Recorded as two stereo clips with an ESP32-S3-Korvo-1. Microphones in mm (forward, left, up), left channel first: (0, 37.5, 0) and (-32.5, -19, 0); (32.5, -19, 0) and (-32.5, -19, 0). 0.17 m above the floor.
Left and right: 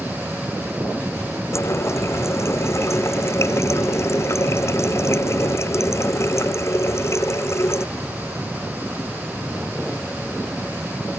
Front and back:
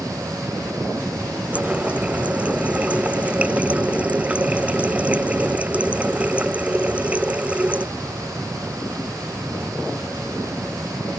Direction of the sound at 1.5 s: 110° left.